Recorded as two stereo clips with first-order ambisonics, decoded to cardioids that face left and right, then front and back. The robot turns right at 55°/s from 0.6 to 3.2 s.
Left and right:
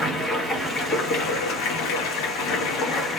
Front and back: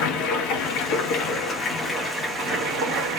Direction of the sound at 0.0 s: 15° left.